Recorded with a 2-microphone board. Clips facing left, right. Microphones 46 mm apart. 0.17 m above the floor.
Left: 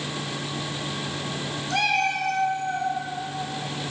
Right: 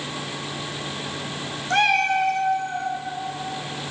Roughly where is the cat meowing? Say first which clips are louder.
Right 4 dB; right.